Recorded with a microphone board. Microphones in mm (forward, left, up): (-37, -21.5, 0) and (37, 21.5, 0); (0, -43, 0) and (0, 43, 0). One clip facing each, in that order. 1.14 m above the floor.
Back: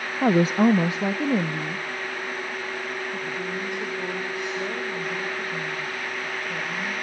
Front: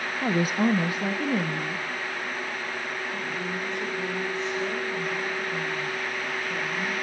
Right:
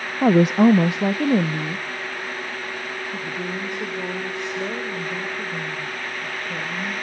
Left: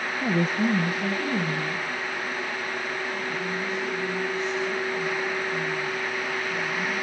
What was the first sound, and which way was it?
A woman speaking, 95° right.